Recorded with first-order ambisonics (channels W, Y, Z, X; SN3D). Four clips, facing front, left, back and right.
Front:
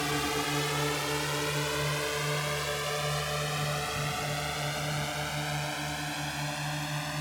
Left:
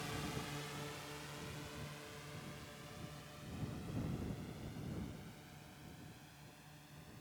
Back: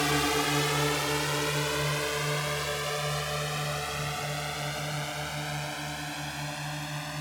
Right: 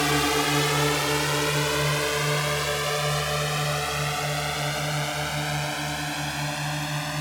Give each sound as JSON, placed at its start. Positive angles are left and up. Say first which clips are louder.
{"t": 0.0, "sound": "a drone", "louder": "right 23 dB, back 4 dB", "azimuth_deg": -105}